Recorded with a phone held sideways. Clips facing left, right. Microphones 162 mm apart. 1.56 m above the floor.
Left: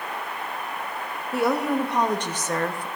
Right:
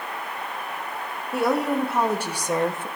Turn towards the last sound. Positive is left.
turn(degrees=-25)  # may be behind; listen again after turning